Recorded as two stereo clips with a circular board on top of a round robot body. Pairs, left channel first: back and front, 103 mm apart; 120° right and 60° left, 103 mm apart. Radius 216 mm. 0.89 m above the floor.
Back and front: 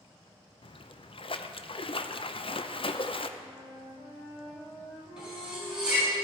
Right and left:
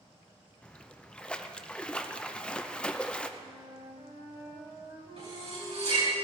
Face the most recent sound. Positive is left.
turn(degrees=80)